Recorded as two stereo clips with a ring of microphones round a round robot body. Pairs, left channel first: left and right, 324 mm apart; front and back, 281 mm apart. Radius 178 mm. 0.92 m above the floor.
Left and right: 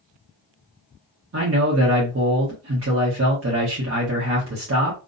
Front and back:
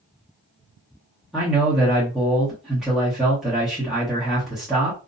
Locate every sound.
1.3 s a man speaking: 90° right, 1.1 m